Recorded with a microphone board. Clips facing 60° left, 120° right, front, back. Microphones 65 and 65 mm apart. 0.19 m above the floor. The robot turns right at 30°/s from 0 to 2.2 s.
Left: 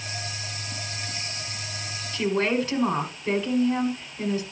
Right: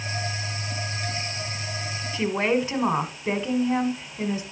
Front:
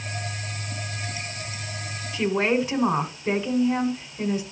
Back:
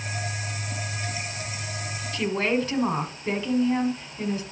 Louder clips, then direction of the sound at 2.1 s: Even, front 2 dB; 65° right.